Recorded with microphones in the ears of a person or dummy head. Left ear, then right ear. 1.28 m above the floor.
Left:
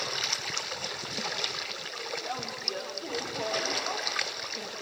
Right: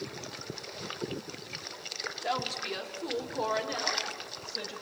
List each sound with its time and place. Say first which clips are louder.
2.2 s a woman speaking: right 4 dB; 50° right (ahead or behind), 2.5 m; by 4.7 s 30° right (ahead or behind), 6 m